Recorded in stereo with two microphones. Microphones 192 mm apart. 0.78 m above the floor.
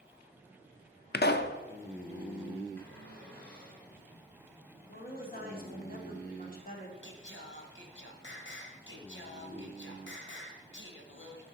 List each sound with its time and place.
1.1 s a pop: 55° left (ahead or behind), 0.6 m
2.8 s a cupboard door: 10° left (ahead or behind), 4 m
4.9 s a woman speaking: 45° left (ahead or behind), 2.5 m
7.0 s singing: 65° left (ahead or behind), 1.1 m